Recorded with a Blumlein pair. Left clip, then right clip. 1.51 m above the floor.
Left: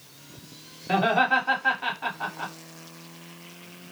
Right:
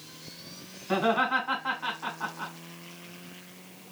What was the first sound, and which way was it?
Laughter, 50° left.